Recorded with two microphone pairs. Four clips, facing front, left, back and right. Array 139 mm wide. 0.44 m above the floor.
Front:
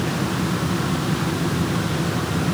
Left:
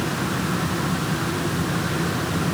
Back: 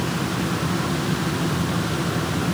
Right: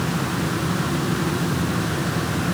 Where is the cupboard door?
No cupboard door in this recording.